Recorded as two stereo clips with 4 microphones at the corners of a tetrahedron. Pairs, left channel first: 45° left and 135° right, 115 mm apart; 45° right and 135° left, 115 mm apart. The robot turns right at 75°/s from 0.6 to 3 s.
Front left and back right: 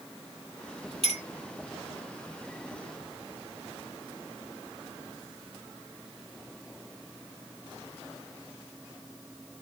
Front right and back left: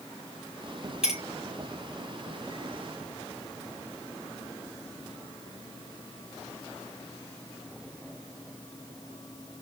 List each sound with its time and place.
1.0 s a clink: 140° right, 1.4 m; by 1.2 s 130° right, 1.4 m